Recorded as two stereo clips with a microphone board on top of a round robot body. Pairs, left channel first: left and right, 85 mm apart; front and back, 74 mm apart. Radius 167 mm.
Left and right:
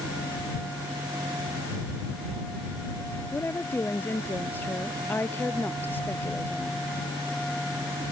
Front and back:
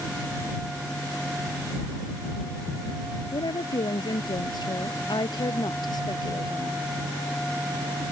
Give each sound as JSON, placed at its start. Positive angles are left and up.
{"t": 3.3, "sound": "a woman speaking", "azimuth_deg": 25}